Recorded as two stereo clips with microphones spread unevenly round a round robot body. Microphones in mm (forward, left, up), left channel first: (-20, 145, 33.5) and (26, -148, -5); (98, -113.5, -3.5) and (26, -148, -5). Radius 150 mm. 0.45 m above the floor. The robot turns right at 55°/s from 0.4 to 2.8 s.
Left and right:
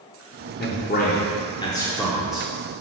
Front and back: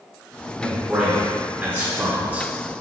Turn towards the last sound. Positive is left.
turn(degrees=-125)